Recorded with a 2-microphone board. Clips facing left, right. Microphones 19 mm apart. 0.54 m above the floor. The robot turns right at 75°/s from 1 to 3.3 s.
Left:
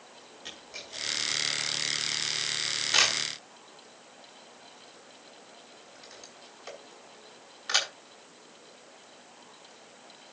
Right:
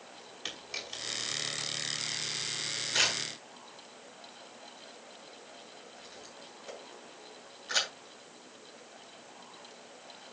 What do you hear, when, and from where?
0.5 s a camera shutter: 40° right (ahead or behind), 5.5 m; by 7.9 s 50° left (ahead or behind), 5.5 m